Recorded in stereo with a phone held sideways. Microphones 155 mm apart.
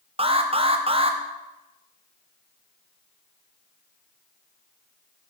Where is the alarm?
40° right (ahead or behind), 1.0 m.